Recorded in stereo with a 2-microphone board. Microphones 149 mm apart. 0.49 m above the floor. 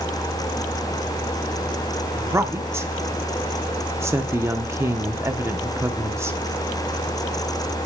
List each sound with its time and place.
2.1 s a woman speaking: 20° right (ahead or behind), 0.7 m